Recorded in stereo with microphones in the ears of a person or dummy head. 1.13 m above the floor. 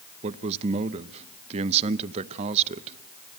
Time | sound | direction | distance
0.2 | a man speaking | 35° right (ahead or behind) | 0.7 m